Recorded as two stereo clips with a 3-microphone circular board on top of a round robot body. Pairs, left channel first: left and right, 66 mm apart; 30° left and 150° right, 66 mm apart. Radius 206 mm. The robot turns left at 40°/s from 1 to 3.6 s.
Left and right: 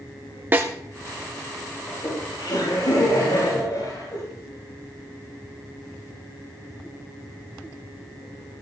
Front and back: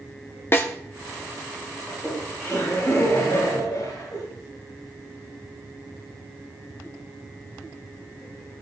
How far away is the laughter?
About 7 m.